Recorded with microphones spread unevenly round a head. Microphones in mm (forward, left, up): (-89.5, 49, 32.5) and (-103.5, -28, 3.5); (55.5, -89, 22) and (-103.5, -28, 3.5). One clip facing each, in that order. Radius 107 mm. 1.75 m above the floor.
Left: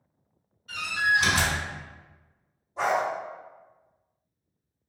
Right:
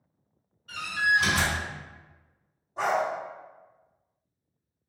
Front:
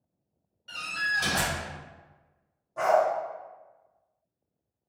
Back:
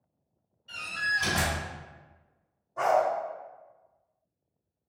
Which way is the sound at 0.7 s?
20° right.